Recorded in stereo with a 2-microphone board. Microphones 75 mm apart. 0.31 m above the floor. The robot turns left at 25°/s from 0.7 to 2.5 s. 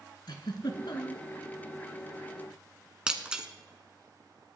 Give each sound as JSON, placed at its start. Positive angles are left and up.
{"t": 0.3, "sound": "a giggle", "side_deg": 70, "distance_m": 1.5}
{"t": 3.1, "sound": "breaking glass", "side_deg": -10, "distance_m": 1.2}